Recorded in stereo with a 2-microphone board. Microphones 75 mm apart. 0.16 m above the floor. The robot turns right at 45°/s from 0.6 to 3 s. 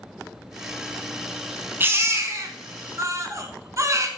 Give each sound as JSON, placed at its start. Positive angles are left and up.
{"t": 1.8, "sound": "a baby crying", "side_deg": -30, "distance_m": 1.0}